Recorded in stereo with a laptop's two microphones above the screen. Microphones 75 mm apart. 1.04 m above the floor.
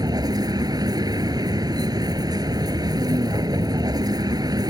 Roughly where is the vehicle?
Right.